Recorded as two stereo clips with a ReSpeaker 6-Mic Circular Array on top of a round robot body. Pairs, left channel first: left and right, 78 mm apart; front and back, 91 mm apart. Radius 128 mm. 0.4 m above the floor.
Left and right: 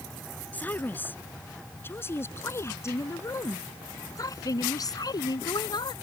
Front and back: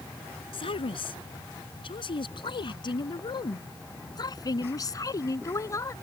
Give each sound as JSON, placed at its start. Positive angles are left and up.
{"t": 0.5, "sound": "a woman speaking", "azimuth_deg": 20}